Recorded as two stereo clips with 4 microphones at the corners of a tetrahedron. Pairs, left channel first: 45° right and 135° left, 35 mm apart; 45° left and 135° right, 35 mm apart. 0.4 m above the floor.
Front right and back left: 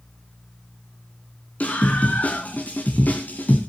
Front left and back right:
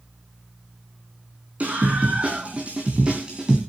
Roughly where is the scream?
Right.